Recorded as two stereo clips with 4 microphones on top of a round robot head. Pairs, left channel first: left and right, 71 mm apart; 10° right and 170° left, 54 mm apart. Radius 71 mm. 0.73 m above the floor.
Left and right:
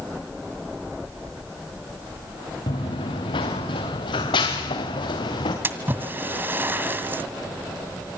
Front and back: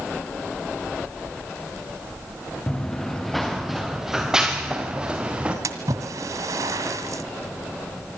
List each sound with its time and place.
2.7 s running footsteps: 65° left, 3.5 m; by 5.5 s 105° left, 6.5 m
5.6 s a splash: 150° right, 2 m